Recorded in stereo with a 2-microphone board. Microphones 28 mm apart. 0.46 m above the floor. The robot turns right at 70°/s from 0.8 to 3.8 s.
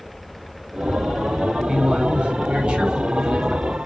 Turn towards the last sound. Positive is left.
turn(degrees=25)